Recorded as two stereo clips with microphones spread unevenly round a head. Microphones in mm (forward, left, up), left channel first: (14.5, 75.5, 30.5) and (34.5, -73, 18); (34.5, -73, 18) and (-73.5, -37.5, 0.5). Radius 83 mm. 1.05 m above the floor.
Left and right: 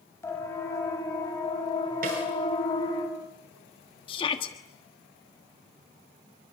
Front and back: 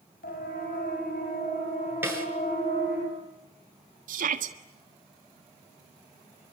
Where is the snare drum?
125° right, 8 m.